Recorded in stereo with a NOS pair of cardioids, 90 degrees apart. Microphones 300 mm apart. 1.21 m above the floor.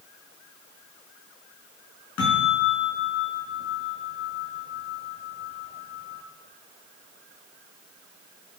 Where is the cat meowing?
No cat meowing in this recording.